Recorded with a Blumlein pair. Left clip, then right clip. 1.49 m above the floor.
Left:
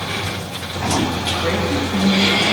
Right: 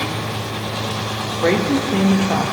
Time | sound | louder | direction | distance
1.4 | a woman speaking | right 7 dB | 60° right | 1.7 m